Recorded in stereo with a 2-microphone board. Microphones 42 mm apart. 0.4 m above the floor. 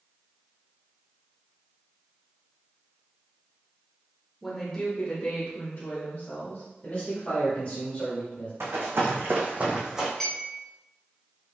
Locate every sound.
4.4 s a woman speaking: 5° left (ahead or behind), 0.8 m; by 6.6 s 50° left (ahead or behind), 1.6 m
6.8 s a man speaking: 30° left (ahead or behind), 1.4 m
8.6 s running footsteps: 75° right (ahead or behind), 1.4 m; by 10.1 s 10° right (ahead or behind), 1.2 m
10.2 s a clink: 5° left (ahead or behind), 1.0 m